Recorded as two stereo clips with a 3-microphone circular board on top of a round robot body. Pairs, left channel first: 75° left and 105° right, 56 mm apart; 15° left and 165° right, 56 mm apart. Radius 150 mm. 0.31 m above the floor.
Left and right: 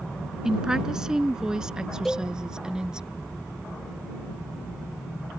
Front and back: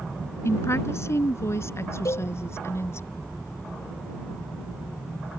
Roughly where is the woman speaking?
Ahead right.